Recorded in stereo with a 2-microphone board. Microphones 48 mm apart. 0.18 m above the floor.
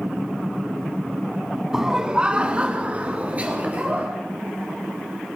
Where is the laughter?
10° right (ahead or behind), 1.0 m; by 4.1 s 30° right (ahead or behind), 3 m.